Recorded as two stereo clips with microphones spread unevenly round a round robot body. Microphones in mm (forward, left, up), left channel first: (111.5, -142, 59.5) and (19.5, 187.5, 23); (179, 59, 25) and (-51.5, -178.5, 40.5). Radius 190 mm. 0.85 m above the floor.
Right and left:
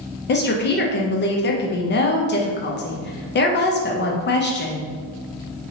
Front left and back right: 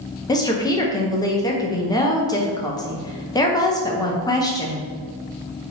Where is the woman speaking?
20° right, 0.6 m.